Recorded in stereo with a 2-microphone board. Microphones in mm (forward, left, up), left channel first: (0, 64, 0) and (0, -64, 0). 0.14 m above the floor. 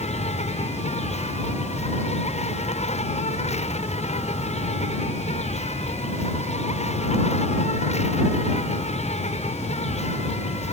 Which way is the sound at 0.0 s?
70° left (ahead or behind).